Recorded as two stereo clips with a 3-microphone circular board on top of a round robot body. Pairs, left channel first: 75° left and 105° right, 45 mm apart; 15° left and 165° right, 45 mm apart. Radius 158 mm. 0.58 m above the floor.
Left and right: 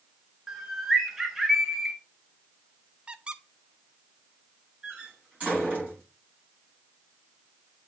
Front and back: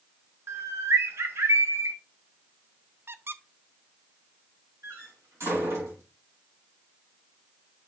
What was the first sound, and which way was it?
A bird, 175° left.